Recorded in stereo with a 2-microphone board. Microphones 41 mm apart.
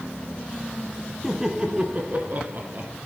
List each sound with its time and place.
1.2 s laughter: 10° right (ahead or behind), 1.2 m; by 2.9 s 50° right (ahead or behind), 1.6 m